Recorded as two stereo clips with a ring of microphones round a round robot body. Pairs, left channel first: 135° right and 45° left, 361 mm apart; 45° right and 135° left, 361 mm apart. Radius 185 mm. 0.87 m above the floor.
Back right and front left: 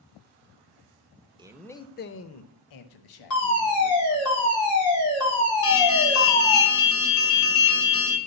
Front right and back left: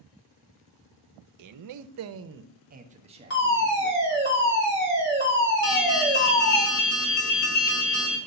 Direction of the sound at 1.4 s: 120° left.